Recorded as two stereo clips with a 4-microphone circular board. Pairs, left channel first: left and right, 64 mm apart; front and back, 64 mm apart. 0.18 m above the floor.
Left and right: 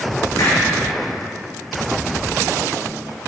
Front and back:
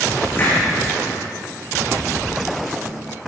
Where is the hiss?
55° left, 7.5 m.